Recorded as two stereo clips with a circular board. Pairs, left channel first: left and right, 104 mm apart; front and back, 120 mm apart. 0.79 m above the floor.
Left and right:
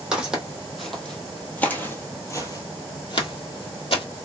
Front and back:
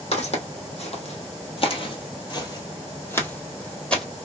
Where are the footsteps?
10° right, 1.7 m; by 4.0 s 85° left, 1.5 m.